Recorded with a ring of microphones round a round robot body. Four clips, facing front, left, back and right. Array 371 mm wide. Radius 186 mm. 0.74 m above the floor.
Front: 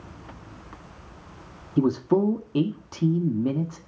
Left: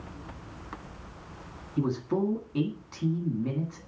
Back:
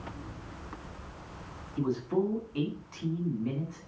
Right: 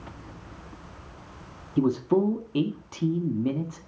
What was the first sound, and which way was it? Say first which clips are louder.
A man speaking: right 6 dB, front 8 dB; 20° right.